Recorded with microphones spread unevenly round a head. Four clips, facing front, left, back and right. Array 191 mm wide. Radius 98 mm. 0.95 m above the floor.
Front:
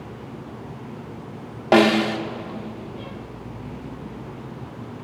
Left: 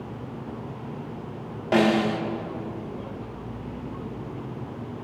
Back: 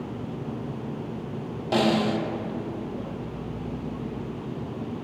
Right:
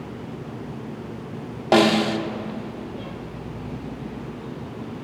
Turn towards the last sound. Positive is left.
turn(degrees=-35)